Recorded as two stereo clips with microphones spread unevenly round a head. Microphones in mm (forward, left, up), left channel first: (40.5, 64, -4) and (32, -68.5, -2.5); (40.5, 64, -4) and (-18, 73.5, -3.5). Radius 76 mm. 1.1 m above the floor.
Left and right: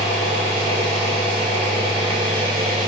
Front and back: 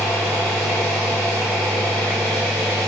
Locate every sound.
0.0 s an engine running: 90° right, 1.0 m